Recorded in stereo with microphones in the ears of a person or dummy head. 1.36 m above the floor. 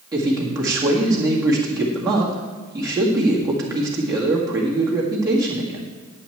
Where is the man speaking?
20° right (ahead or behind), 2.0 m.